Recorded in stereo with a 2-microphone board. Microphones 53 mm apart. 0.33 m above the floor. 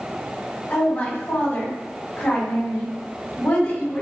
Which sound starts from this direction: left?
A woman speaking, at 0.7 s.